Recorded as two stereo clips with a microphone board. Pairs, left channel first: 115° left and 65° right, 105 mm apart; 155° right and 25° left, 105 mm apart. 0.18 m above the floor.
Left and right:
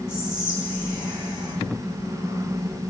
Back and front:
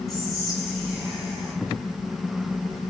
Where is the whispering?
115° left, 1.5 m.